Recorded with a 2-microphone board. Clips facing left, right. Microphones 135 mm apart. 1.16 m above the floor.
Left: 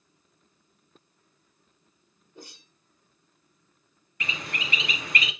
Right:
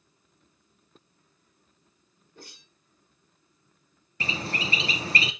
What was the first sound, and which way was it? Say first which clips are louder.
A whoosh: left 3 dB; 15° left (ahead or behind).